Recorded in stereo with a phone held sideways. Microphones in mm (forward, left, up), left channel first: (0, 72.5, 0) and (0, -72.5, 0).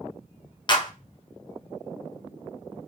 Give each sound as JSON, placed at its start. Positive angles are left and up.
{"t": 0.7, "sound": "a clap", "side_deg": 35, "distance_m": 0.7}